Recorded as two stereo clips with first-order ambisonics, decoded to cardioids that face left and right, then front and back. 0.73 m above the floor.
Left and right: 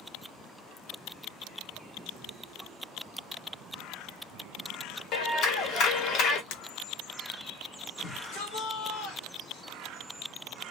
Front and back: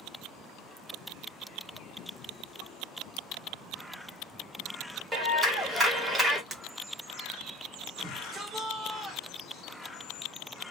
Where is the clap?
110° left, 1.1 m.